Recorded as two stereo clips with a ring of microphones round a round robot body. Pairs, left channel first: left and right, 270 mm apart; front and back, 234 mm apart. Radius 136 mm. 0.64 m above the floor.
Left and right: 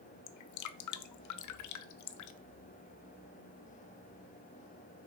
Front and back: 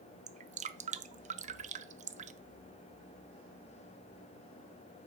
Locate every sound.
0.3 s dripping: 120° left, 0.5 m